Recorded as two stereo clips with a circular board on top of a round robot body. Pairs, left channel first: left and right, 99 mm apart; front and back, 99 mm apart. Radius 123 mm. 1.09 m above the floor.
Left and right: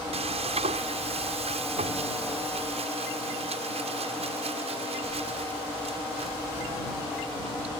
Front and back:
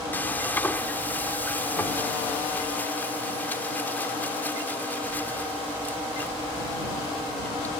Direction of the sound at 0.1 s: 75° right.